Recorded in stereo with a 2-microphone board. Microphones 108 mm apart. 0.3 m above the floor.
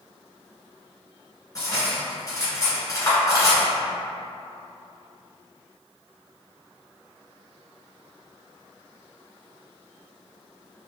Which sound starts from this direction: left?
Cutlery clinking, at 1.6 s.